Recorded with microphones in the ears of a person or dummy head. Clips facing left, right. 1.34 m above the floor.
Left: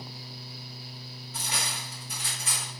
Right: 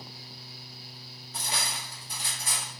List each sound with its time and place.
1.3 s cutlery clinking: 30° right (ahead or behind), 2 m